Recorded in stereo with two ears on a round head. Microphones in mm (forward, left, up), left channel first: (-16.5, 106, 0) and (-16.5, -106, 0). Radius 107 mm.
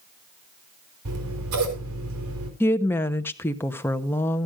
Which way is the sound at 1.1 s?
70° right (ahead or behind).